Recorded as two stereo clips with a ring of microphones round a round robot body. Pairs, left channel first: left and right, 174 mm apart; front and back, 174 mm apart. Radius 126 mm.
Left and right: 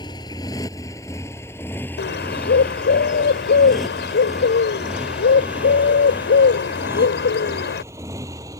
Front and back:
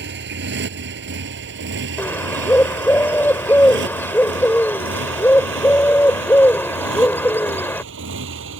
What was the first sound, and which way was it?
A motorcycle, 165° left.